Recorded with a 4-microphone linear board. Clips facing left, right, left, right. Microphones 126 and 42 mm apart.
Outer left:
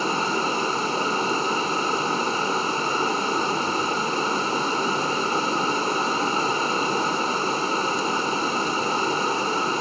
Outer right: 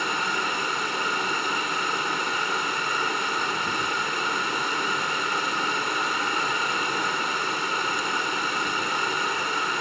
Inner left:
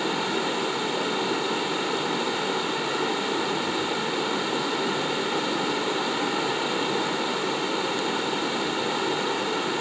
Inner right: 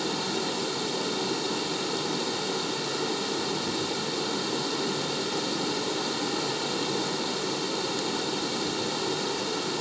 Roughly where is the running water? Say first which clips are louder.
Outer left 4 dB, inner left 4 dB; left.